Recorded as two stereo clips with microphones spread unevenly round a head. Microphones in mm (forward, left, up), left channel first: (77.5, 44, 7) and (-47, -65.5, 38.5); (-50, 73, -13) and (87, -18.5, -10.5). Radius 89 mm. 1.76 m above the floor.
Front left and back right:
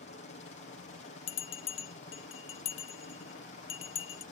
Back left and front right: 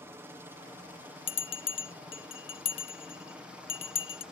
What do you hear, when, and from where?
0.0 s a helicopter: 40° left; by 4.3 s 50° left
1.3 s a bell: 100° left